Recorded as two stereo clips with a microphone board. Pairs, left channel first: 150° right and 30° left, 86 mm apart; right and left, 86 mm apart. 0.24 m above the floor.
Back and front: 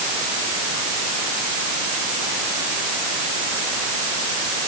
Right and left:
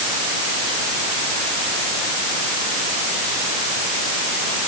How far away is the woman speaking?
I don't hear a woman speaking.